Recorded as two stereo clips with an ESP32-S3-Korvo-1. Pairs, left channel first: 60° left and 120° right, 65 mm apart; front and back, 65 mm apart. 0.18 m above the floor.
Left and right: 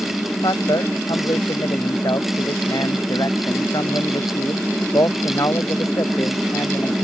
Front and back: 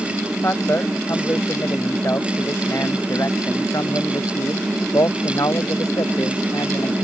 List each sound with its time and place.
0.4 s a man speaking: 55° left; by 7.0 s 20° left